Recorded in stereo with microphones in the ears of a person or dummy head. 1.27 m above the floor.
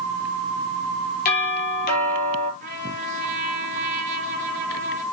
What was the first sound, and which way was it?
A doorbell, 45° left (ahead or behind).